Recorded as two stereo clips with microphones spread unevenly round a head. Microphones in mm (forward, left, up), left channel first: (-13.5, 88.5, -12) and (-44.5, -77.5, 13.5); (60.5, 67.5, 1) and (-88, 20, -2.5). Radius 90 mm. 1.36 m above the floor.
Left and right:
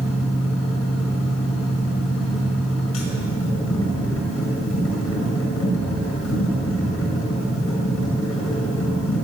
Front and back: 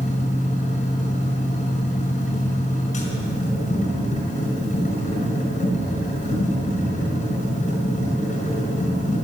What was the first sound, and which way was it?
A machine running, 60° left.